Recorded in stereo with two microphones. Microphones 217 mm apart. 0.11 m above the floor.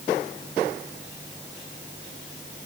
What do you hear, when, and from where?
Only background noise.